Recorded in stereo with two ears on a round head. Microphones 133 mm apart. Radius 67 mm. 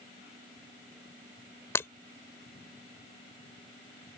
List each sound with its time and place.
1.8 s breaking glass: 20° left (ahead or behind)